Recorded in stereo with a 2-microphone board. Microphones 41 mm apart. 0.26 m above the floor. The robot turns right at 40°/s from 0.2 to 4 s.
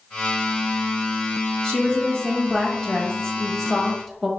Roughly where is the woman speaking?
Left.